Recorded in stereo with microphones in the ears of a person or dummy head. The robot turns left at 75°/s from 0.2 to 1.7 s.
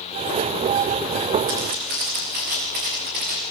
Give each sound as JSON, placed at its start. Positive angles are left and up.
{"t": 1.5, "sound": "footsteps", "side_deg": -70, "distance_m": 6.5}